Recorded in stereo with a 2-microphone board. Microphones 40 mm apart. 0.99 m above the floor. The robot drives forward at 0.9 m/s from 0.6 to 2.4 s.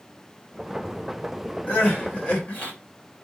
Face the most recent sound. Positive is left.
turn(degrees=35)  # may be behind; listen again after turning